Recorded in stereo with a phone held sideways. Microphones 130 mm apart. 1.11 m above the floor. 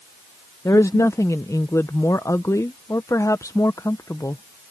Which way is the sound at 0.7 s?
25° left (ahead or behind).